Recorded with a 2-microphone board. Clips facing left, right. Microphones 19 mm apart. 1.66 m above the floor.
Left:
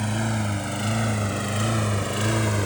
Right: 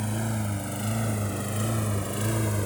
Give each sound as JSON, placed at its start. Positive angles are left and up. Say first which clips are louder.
{"t": 0.0, "sound": "a lawn mower", "louder": "left 4 dB", "side_deg": 30}